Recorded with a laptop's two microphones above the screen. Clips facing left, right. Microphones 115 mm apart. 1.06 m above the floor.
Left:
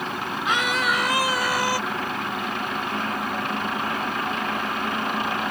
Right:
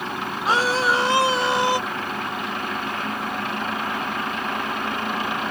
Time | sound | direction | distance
0.5 | a scream | 35° right (ahead or behind) | ?